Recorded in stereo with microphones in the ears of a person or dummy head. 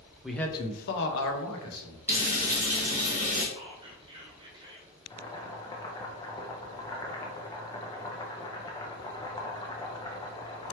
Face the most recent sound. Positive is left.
turn(degrees=15)  # may be behind; listen again after turning